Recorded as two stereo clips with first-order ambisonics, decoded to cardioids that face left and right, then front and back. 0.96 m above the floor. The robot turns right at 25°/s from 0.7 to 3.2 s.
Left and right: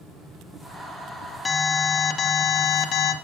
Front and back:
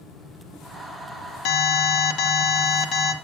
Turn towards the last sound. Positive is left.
turn(degrees=55)